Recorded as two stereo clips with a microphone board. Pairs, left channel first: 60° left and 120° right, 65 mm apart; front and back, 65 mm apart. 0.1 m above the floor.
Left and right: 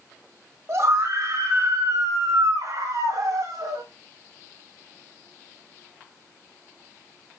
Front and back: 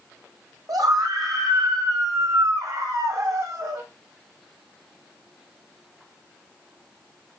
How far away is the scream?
About 6 m.